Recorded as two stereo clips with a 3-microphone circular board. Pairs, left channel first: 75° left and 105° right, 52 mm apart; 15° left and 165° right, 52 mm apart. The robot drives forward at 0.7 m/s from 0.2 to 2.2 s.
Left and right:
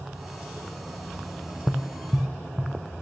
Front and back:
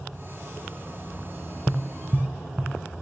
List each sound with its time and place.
1.7 s tapping: 60° left, 0.5 m; by 2.7 s 125° left, 0.5 m